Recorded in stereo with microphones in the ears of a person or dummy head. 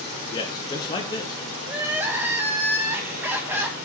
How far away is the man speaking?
About 0.7 m.